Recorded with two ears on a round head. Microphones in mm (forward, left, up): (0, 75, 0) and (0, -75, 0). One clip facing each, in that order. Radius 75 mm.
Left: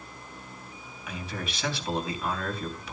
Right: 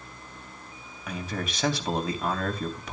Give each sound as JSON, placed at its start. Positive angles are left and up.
{"t": 1.1, "sound": "a man speaking", "side_deg": -40, "distance_m": 3.5}